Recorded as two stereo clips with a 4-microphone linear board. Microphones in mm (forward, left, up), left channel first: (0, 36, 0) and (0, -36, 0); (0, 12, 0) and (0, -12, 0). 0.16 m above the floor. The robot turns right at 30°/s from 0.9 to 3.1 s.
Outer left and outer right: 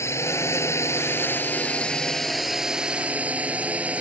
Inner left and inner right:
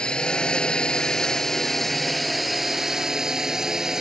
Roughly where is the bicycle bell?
I don't hear a bicycle bell.